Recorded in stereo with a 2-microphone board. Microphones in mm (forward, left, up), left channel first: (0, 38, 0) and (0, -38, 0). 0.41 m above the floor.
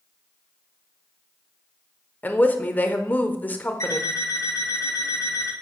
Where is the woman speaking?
25° left (ahead or behind), 0.9 m.